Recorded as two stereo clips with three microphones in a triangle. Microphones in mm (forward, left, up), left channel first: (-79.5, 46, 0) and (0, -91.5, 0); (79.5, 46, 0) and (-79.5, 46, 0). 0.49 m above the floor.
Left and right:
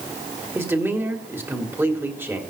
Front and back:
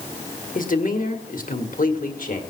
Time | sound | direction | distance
0.6 | a man speaking | 15° left | 1.5 m